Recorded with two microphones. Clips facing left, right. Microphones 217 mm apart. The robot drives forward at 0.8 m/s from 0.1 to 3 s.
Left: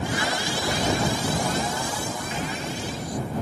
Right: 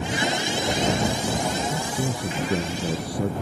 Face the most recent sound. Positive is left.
turn(degrees=-70)  # may be behind; listen again after turning